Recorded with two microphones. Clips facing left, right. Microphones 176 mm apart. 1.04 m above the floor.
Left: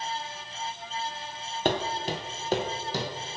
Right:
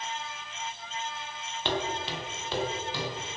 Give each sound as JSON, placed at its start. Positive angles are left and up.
{"t": 1.6, "sound": "footsteps", "side_deg": 45, "distance_m": 1.4}